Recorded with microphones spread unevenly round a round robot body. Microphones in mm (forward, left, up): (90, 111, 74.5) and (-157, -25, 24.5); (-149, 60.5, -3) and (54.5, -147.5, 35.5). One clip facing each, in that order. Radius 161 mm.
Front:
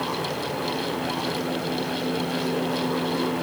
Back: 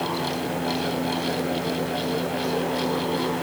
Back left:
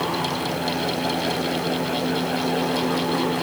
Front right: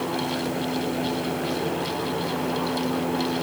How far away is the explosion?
I don't hear an explosion.